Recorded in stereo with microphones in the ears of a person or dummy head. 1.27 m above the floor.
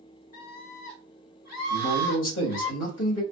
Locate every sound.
0.3 s a scream: 80° left, 2.5 m
1.7 s a man speaking: 60° left (ahead or behind), 1.7 m